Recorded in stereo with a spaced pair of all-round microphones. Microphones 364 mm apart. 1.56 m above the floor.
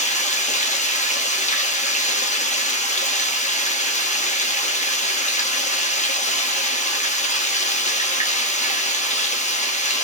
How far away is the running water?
About 1.0 m.